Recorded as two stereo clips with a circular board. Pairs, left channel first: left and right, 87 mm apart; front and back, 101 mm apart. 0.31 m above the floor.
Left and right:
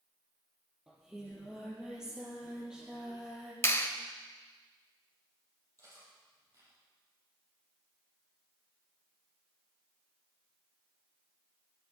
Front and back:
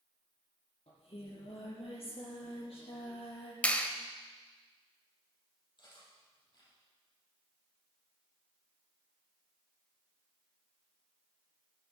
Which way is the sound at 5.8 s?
40° right.